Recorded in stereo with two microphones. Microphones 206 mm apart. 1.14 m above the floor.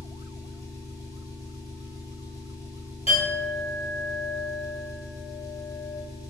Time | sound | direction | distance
0.0 | an engine running | 15° left (ahead or behind) | 0.8 m
3.1 | a clink | 25° left (ahead or behind) | 0.8 m